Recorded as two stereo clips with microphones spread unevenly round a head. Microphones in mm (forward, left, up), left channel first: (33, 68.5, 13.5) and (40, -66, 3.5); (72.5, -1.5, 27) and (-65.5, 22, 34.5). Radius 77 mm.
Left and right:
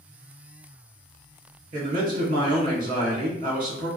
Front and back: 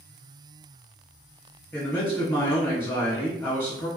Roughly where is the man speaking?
Right.